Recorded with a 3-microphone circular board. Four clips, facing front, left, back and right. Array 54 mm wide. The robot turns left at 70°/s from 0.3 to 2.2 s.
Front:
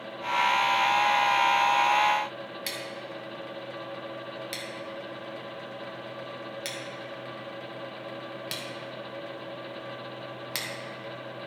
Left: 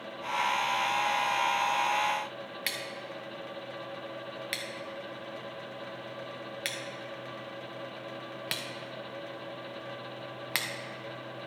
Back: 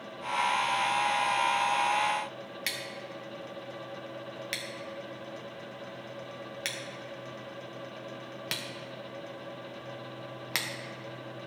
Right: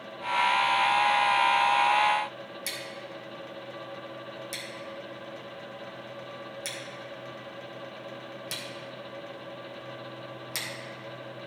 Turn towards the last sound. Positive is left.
turn(degrees=125)